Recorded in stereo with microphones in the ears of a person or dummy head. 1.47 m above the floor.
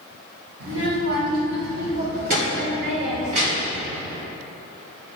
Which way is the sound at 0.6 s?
70° right (ahead or behind).